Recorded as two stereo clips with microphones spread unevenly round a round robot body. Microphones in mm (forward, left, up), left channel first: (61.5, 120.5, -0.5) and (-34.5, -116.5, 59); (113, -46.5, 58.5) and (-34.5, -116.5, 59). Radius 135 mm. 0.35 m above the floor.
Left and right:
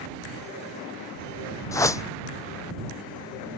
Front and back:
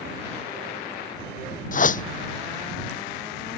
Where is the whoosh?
10° right.